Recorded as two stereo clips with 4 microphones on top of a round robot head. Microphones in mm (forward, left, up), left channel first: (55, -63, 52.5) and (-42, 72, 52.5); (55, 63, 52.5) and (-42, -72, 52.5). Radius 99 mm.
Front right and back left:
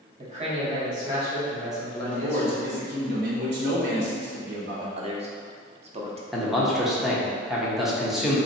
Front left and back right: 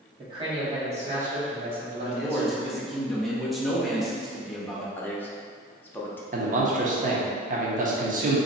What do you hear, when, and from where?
0.2 s a man speaking: 175° left, 1.7 m; by 2.7 s 115° right, 1.4 m
2.0 s a man speaking: 145° left, 1.1 m
5.0 s a man speaking: 125° left, 0.8 m
6.3 s a man speaking: 145° right, 0.8 m